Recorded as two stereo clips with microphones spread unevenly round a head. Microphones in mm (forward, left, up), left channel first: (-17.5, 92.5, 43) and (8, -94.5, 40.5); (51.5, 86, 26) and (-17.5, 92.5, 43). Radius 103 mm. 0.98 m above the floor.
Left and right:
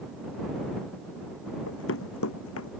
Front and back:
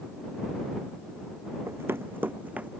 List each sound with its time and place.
1.7 s running footsteps: 125° left; by 2.7 s 110° left